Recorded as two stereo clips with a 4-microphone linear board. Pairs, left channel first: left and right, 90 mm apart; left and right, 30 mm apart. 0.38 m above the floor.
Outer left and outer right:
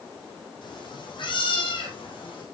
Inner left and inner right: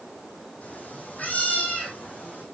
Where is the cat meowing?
60° left (ahead or behind), 4 m; by 2.5 s 70° left (ahead or behind), 5.5 m.